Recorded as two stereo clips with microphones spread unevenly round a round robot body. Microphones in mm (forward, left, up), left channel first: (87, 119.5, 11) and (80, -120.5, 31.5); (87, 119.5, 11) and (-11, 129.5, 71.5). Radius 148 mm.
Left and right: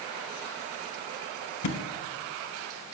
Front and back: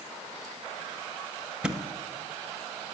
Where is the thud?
90° left, 1.1 m.